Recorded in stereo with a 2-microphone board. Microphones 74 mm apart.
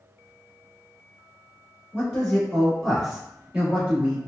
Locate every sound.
1.9 s a man speaking: 20° left (ahead or behind), 1.4 m; by 4.2 s 25° right (ahead or behind), 1.6 m